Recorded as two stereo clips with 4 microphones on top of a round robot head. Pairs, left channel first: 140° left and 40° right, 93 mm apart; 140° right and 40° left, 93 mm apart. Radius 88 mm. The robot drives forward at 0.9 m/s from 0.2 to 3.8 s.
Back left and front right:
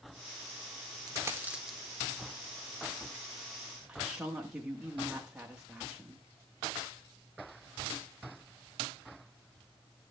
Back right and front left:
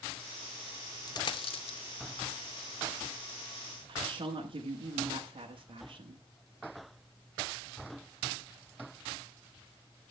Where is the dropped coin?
95° right, 0.8 m; by 1.8 s 130° right, 1.1 m.